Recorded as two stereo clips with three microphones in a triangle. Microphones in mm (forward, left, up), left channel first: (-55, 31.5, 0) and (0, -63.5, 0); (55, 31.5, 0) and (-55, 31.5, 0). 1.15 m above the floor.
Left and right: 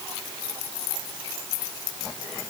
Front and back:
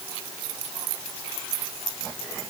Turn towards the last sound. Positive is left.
No sound to turn to.